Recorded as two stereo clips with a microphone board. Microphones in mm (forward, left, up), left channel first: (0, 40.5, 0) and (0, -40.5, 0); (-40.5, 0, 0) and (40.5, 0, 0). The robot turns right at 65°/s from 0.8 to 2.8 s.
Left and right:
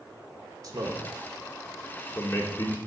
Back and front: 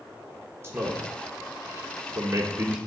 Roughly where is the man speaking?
Ahead right.